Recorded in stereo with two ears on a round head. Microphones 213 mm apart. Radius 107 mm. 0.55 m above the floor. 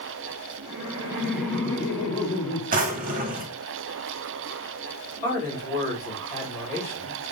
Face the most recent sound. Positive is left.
turn(degrees=35)  # may be behind; listen again after turning